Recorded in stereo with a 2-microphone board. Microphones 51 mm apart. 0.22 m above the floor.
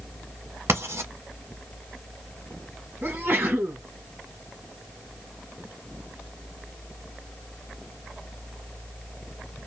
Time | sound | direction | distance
0.7 | writing | 60° right (ahead or behind) | 1.5 m
3.0 | a sneeze | 40° right (ahead or behind) | 1.6 m